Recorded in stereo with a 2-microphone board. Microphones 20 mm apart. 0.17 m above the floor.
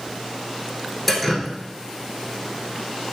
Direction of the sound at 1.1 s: 5° left (ahead or behind).